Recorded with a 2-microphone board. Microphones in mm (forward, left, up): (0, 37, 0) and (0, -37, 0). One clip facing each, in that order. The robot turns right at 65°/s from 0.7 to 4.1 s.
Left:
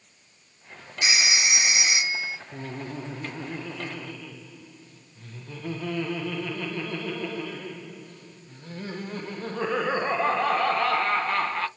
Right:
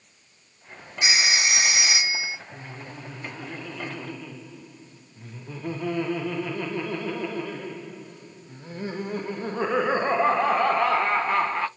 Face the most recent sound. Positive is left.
turn(degrees=-160)